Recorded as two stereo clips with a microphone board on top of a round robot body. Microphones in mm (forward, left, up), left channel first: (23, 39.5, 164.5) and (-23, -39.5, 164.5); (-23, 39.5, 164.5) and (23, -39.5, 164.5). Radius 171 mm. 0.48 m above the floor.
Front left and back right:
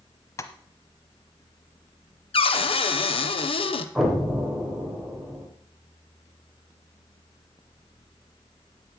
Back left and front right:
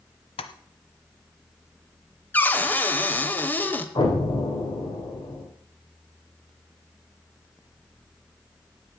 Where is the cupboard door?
50° left, 1.1 m.